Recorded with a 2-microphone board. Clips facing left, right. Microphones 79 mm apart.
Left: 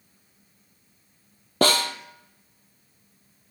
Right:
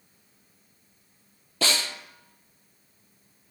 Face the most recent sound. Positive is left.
turn(degrees=50)  # may be behind; listen again after turning